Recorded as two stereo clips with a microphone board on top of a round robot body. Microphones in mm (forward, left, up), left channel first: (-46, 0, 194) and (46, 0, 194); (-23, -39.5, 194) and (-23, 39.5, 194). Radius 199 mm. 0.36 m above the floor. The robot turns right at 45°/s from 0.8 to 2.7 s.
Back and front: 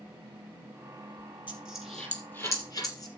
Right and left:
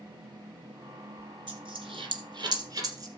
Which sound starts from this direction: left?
A dropped coin, at 1.5 s.